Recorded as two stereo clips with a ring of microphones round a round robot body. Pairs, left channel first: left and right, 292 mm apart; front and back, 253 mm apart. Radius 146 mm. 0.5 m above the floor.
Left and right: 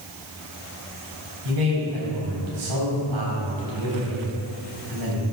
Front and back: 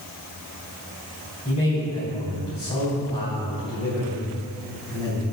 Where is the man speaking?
70° right, 2.5 m.